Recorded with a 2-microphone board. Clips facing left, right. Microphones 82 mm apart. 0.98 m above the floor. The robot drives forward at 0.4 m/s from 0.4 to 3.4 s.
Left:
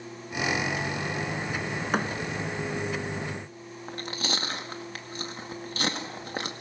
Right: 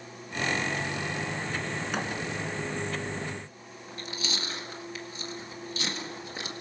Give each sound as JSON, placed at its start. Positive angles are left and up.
{"t": 1.9, "sound": "a thud", "side_deg": 45, "distance_m": 1.5}
{"t": 3.9, "sound": "chewing", "side_deg": 55, "distance_m": 1.9}